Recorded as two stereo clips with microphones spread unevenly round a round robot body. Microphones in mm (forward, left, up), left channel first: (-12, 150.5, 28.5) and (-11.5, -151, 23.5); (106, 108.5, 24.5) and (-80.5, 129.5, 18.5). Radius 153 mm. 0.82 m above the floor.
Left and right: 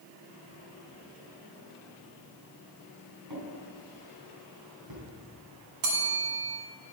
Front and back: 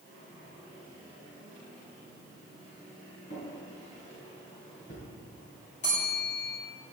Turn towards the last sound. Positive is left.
turn(degrees=-65)